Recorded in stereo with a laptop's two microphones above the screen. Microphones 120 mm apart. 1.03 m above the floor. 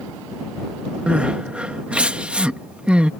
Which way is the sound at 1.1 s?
10° right (ahead or behind).